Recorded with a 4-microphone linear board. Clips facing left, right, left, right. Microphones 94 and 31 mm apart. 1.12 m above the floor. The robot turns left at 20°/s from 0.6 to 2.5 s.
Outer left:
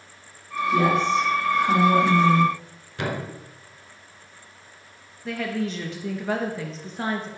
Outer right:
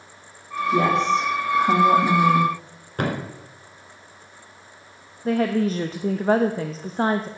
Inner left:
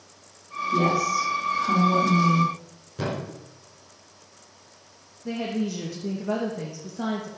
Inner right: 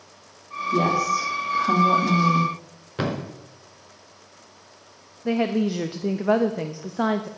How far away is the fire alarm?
I don't hear a fire alarm.